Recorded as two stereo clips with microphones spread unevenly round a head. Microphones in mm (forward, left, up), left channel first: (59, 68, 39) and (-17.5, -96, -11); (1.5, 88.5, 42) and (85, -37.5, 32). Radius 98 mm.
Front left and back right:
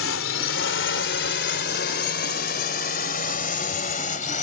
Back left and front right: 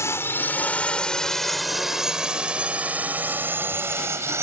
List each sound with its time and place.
0.0 s a drone: 50° left; by 4.4 s 15° left